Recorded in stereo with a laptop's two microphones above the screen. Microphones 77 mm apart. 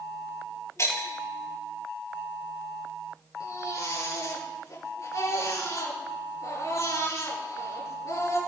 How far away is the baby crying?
About 6.5 m.